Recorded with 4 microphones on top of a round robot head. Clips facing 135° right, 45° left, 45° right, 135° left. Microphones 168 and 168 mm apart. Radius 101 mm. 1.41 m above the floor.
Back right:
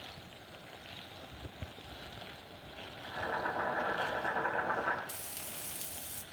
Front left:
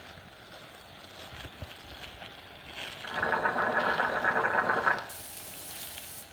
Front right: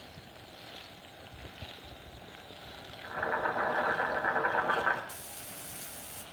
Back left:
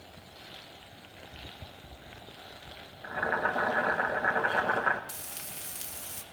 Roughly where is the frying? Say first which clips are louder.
Even, back left 1 dB; behind.